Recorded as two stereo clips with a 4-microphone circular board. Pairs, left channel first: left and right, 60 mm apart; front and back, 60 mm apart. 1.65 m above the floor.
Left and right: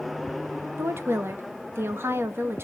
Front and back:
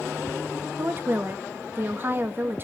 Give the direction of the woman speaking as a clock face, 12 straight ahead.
4 o'clock.